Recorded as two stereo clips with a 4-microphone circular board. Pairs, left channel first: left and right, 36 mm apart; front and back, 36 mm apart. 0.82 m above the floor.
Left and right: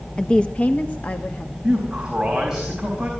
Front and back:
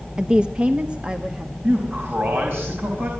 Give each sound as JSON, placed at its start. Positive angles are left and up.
{"t": 0.2, "sound": "a woman speaking", "azimuth_deg": 145, "distance_m": 0.6}
{"t": 1.6, "sound": "a man speaking", "azimuth_deg": -170, "distance_m": 4.5}